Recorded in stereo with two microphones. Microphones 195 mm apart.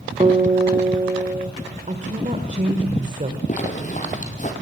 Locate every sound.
0.2 s a guitar: 30° right (ahead or behind), 1.8 m
1.9 s a woman speaking: 40° right (ahead or behind), 1.7 m
3.5 s a zipper: 40° left (ahead or behind), 4 m